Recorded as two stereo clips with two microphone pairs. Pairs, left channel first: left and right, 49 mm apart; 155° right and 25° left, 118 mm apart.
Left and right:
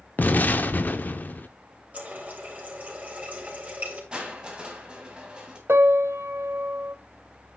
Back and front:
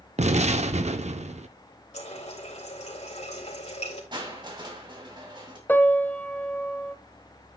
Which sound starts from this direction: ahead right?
Crushing, at 4.1 s.